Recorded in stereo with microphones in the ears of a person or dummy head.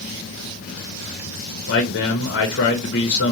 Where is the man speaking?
55° left (ahead or behind), 0.7 m.